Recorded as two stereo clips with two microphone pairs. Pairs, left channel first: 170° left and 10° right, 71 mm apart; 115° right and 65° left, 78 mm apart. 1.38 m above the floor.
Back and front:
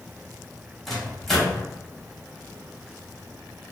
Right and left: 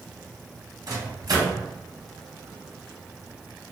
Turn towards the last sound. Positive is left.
turn(degrees=85)